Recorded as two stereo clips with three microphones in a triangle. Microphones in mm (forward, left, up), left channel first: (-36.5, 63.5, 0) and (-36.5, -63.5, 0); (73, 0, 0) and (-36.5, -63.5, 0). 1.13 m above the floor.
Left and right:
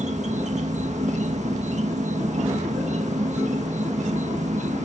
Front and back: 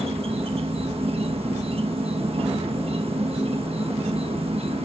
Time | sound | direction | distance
0.0 | an insect | 110° right | ?